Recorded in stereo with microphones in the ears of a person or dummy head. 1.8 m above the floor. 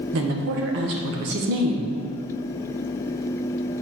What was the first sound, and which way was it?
A woman speaking, 55° right (ahead or behind).